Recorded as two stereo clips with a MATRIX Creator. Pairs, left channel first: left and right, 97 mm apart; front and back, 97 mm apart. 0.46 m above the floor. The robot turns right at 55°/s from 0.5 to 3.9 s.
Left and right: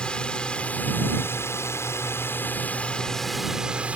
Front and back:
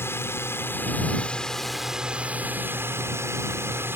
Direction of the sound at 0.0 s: 25° left.